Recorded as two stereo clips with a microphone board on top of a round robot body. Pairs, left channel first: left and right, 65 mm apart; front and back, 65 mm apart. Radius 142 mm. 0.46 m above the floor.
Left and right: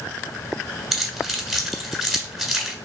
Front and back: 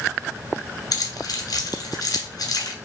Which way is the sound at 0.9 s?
Straight ahead.